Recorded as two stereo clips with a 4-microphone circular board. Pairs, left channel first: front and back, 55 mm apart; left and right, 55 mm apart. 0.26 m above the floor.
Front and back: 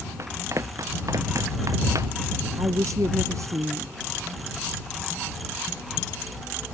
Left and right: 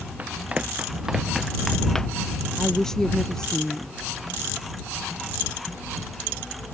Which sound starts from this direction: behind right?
Running footsteps, at 0.2 s.